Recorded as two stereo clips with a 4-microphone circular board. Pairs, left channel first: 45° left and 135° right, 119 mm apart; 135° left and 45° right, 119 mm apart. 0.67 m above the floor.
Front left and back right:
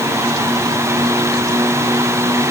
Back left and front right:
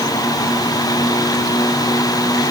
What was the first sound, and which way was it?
Only background noise.